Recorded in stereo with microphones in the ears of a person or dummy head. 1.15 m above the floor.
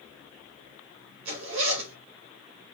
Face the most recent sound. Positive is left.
turn(degrees=-70)  # may be behind; listen again after turning